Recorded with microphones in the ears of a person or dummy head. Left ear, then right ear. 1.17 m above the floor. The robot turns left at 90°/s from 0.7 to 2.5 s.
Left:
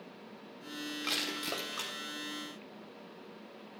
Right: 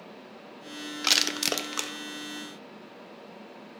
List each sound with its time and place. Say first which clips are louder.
1.0 s crushing: right 11 dB; 40° right (ahead or behind), 0.6 m; by 1.9 s 50° right (ahead or behind), 0.6 m